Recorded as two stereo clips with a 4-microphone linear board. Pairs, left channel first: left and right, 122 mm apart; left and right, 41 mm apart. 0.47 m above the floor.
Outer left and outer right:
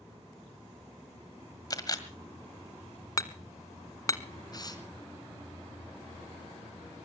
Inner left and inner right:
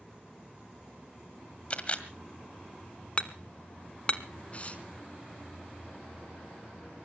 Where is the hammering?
30° left (ahead or behind), 1.1 m.